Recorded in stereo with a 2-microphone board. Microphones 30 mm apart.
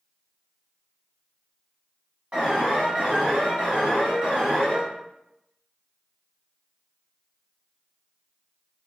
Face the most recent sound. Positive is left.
turn(degrees=-45)  # may be behind; listen again after turning